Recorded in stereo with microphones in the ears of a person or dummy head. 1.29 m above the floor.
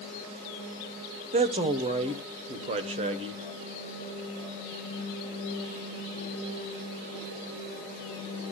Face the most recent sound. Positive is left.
turn(degrees=-30)  # may be behind; listen again after turning